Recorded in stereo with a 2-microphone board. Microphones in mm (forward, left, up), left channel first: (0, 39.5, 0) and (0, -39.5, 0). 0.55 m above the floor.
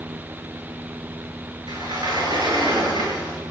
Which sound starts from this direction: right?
A sliding door, at 1.7 s.